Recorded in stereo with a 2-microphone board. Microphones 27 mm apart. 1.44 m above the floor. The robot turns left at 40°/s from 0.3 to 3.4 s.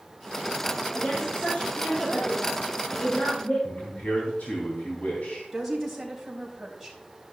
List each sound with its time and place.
0.9 s a woman speaking: 170° left, 5 m; by 3.5 s 75° left, 5 m
3.6 s a man speaking: 80° left, 3 m
5.5 s a woman speaking: centre (ahead or behind), 4 m